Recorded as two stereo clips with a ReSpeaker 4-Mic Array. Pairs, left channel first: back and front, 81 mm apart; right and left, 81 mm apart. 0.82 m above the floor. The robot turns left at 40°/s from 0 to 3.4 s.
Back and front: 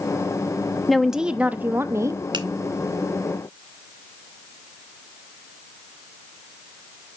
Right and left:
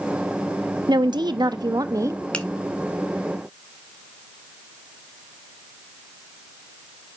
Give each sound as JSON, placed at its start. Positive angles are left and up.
{"t": 0.9, "sound": "a woman speaking", "azimuth_deg": 95, "distance_m": 0.9}
{"t": 2.3, "sound": "a finger snap", "azimuth_deg": -15, "distance_m": 1.4}